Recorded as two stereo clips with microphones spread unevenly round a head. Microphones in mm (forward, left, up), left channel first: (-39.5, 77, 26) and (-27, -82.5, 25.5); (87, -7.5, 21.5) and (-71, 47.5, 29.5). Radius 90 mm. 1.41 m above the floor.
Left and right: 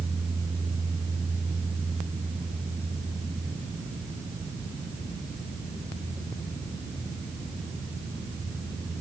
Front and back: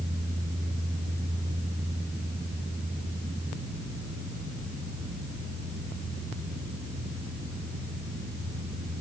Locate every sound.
Only background noise.